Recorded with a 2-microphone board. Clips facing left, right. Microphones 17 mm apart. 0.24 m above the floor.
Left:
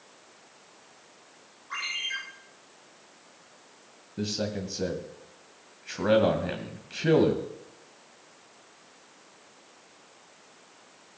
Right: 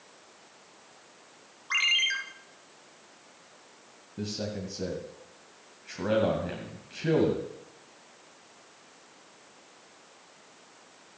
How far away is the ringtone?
About 2.5 m.